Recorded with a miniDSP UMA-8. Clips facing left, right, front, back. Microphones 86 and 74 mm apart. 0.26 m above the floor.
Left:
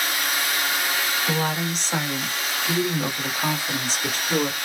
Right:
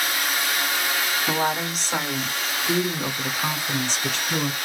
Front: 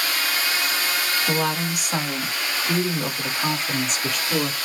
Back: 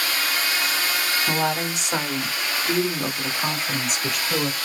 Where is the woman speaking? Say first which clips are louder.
Right 2 dB, even; 150° right, 1.3 m; by 4.6 s 90° left, 1.9 m.